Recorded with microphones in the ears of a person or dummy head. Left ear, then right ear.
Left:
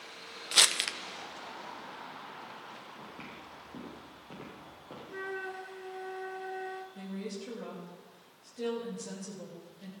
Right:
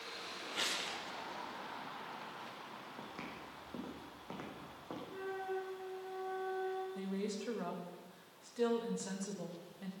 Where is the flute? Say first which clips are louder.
Left 3 dB; 55° left (ahead or behind), 1.6 m.